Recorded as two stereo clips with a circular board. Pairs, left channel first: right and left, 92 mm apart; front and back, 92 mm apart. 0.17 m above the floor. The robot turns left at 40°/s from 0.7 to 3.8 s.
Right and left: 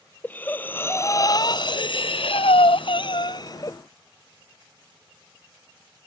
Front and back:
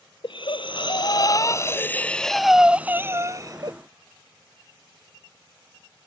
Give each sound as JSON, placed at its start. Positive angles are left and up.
{"t": 0.2, "sound": "breathing", "azimuth_deg": -20}